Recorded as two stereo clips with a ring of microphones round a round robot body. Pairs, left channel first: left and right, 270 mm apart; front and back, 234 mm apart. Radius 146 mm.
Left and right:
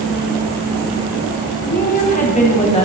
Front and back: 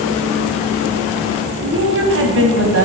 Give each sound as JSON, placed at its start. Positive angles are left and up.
{"t": 1.6, "sound": "a woman speaking", "azimuth_deg": 145, "distance_m": 4.5}